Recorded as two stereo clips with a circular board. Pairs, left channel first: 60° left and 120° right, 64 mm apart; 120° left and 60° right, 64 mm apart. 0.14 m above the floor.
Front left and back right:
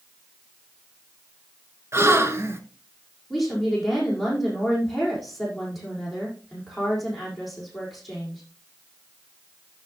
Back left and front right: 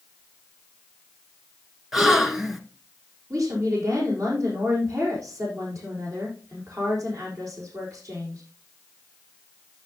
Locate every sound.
1.9 s a gasp: 140° right, 1.4 m
3.3 s a woman speaking: 30° right, 5.5 m